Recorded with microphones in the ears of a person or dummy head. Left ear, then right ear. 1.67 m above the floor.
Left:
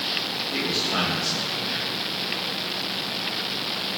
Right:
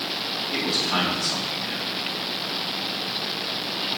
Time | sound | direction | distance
0.5 | a man speaking | 60° right (ahead or behind) | 4 m